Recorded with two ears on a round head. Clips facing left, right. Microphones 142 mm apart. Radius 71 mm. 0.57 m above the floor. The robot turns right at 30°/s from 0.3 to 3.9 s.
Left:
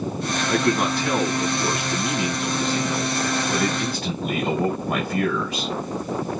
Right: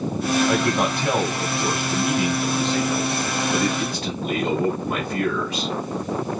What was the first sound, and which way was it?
A man speaking, 60° right.